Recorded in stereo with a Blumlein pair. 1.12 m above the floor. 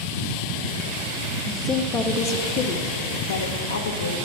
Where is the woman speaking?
10° left, 1.3 m; by 4.2 s 80° left, 1.3 m.